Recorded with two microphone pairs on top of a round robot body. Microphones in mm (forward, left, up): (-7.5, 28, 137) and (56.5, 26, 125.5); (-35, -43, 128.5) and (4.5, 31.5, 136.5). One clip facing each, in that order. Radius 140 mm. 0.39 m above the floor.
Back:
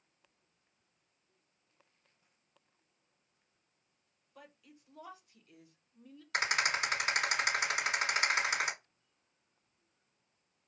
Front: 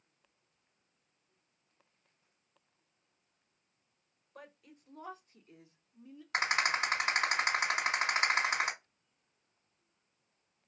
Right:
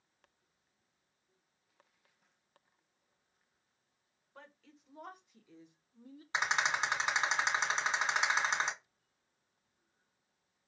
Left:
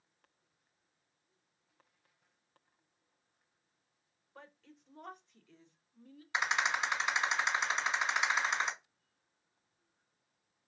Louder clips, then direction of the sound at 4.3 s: Front 3 dB, left 1 dB; 30° right.